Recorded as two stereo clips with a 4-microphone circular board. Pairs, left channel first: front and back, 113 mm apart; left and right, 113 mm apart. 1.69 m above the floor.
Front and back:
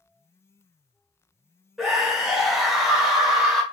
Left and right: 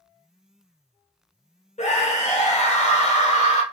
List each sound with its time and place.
1.8 s a scream: 90° left, 1.2 m